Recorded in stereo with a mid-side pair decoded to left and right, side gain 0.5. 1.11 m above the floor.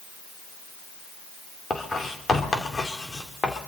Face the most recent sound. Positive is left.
turn(degrees=30)